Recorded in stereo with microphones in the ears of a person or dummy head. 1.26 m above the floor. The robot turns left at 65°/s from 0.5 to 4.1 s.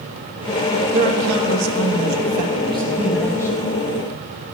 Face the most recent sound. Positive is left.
turn(degrees=120)